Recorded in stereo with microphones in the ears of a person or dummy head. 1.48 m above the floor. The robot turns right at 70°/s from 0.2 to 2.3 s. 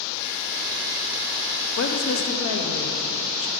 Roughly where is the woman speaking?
Left.